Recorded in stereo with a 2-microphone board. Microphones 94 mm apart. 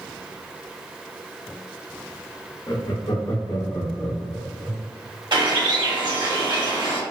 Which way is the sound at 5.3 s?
60° right (ahead or behind).